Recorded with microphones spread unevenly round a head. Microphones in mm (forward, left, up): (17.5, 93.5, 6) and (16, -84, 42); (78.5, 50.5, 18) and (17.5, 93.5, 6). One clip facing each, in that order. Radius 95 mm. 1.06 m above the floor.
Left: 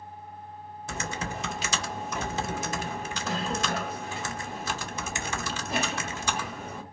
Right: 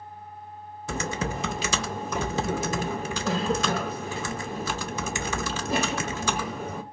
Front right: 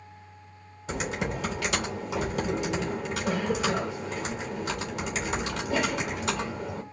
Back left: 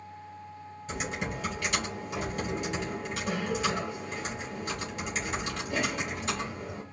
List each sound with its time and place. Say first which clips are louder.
0.9 s typing on a keyboard: right 5 dB, front right 4 dB; 80° right, 0.6 m